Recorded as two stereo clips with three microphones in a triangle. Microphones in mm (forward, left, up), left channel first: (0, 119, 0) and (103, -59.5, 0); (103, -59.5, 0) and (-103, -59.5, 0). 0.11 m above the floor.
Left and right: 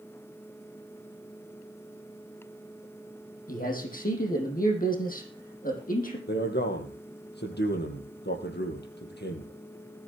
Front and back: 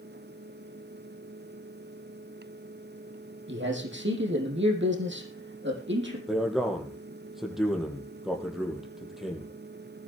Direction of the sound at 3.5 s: 165° left.